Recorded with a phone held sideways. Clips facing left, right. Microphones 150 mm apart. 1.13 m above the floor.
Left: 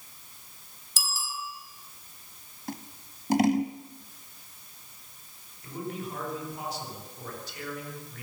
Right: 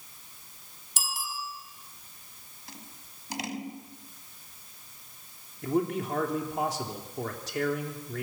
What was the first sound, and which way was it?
A bicycle bell, 60° right (ahead or behind).